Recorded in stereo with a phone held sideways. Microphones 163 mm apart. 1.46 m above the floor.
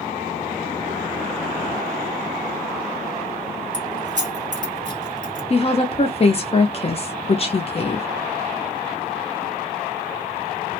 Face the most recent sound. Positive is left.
turn(degrees=40)  # may be behind; listen again after turning